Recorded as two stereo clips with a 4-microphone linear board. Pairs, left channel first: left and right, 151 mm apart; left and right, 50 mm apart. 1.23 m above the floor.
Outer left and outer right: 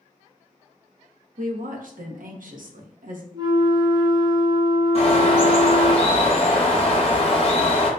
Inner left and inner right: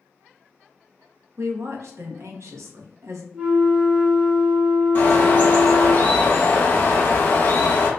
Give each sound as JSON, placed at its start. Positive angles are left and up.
{"t": 1.4, "sound": "a woman speaking", "side_deg": -75, "distance_m": 0.8}
{"t": 3.3, "sound": "a flute", "side_deg": -30, "distance_m": 0.6}
{"t": 5.0, "sound": "a bird", "side_deg": 45, "distance_m": 0.7}